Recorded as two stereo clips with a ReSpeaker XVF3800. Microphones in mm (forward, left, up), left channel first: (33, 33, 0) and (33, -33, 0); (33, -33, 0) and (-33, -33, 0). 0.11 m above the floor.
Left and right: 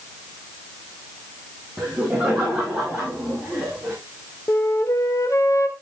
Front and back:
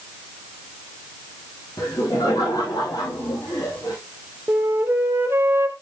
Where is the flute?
125° left, 1.1 m.